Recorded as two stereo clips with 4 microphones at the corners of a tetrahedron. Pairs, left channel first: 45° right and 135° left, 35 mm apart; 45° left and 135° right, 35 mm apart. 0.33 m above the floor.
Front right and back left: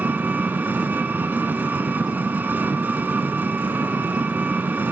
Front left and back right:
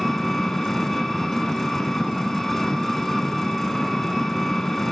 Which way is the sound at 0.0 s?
125° left.